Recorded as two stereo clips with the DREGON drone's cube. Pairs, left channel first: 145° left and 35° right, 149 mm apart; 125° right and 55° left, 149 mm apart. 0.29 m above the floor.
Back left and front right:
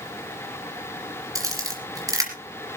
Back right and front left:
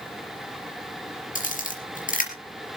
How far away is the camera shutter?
About 4 m.